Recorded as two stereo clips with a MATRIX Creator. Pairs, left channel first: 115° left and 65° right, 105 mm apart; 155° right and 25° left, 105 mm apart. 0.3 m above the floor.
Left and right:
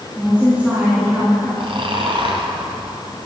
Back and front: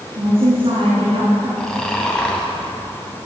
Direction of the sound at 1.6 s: 75° right.